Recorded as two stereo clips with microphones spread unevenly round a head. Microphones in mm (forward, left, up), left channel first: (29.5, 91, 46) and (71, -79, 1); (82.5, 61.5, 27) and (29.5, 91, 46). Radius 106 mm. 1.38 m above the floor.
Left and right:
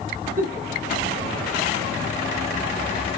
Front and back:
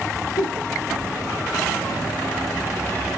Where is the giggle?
30° right, 1.3 m.